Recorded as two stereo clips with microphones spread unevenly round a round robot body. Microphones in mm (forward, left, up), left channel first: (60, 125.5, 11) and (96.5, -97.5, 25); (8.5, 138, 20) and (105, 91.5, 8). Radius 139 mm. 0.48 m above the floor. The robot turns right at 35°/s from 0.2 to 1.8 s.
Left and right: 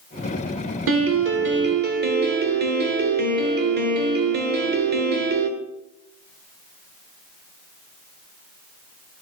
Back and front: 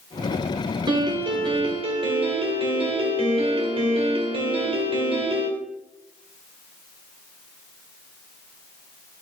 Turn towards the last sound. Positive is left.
turn(degrees=-40)